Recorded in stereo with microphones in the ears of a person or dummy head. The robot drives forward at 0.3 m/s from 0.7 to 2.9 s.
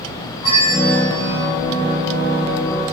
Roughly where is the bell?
Left.